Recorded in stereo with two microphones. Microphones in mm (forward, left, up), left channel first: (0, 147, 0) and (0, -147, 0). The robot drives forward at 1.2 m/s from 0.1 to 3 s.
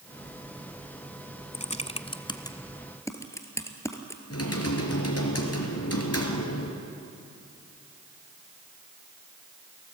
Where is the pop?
No pop in this recording.